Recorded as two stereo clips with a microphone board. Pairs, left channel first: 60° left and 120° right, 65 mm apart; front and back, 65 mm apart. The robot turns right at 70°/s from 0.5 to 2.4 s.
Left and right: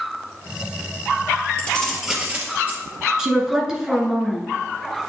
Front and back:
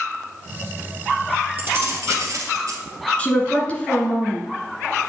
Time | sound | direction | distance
1.6 | keys jangling | 125° left | 1.8 m
3.2 | a woman speaking | 50° right | 1.6 m